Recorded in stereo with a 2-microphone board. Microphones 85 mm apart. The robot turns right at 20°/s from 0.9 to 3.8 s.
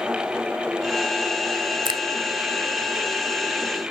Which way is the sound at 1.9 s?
75° right (ahead or behind).